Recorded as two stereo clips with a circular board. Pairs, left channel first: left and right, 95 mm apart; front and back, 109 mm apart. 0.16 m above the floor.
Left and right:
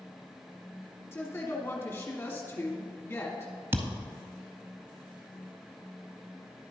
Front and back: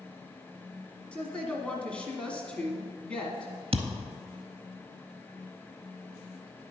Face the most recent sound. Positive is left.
turn(degrees=-155)